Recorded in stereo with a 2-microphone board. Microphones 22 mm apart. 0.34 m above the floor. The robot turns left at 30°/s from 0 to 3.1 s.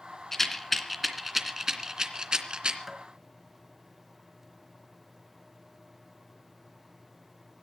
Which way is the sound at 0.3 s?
15° left (ahead or behind).